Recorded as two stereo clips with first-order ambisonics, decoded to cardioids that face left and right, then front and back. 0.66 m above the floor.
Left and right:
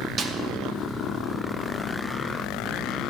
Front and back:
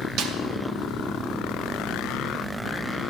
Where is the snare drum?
150° right, 0.8 m.